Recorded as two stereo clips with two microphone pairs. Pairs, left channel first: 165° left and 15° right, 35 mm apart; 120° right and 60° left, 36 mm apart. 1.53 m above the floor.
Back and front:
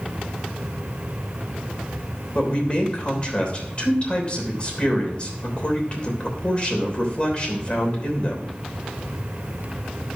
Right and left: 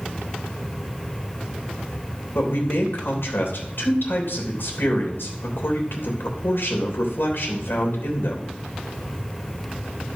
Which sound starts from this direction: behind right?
A man speaking, at 2.4 s.